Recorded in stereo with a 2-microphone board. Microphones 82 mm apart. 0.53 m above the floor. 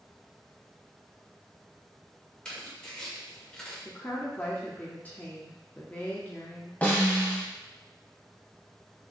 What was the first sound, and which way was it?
Tearing paper, 10° left (ahead or behind).